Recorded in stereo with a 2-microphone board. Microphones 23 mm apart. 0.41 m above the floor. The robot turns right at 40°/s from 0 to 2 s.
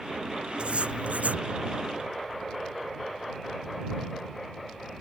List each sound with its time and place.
0.6 s writing: 130° right; by 1.4 s 100° right